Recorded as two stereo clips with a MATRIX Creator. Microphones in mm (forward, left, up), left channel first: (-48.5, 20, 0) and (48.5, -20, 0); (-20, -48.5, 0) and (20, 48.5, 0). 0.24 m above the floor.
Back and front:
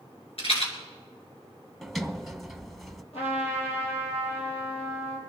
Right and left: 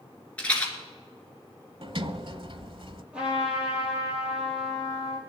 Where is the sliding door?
65° left, 0.9 m.